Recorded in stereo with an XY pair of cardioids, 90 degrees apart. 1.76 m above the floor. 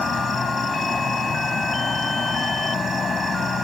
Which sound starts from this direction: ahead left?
An insect, at 0.0 s.